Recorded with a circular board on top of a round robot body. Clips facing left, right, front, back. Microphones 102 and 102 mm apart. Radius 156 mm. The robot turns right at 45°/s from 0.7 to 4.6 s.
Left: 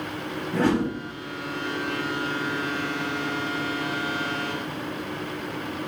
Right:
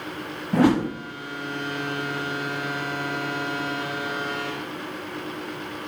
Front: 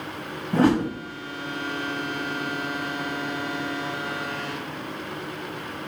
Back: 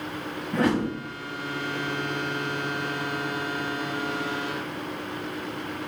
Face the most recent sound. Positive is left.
turn(degrees=115)